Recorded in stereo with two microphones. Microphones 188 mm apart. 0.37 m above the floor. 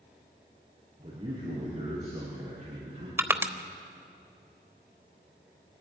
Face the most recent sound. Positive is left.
turn(degrees=-15)  # may be behind; listen again after turning